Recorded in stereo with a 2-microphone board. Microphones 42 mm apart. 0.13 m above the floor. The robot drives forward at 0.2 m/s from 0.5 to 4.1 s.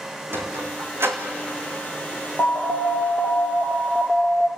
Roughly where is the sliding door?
Right.